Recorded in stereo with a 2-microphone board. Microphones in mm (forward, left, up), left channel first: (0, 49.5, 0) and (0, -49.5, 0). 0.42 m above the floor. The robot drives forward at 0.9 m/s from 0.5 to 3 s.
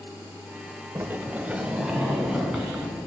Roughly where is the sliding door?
Right.